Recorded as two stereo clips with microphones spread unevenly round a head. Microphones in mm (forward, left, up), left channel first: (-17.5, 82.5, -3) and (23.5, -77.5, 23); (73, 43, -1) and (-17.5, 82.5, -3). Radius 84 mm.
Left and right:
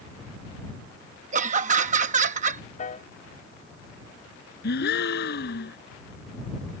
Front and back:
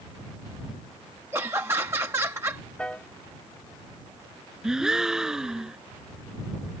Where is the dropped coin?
No dropped coin in this recording.